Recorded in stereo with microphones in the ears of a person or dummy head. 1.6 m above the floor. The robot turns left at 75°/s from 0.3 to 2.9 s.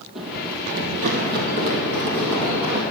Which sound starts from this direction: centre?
Running footsteps, at 0.1 s.